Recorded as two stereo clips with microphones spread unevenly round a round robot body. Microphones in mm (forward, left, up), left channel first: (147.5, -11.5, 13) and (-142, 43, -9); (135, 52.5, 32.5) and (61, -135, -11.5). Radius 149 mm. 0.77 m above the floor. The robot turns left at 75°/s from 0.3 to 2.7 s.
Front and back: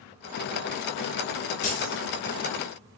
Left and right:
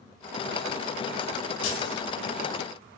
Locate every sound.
1.6 s keys jangling: 55° left, 0.8 m; by 2.0 s 25° left, 0.8 m